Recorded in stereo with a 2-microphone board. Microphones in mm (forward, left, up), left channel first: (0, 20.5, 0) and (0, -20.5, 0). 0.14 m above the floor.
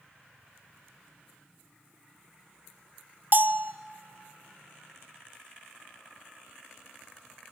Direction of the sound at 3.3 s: 45° right (ahead or behind).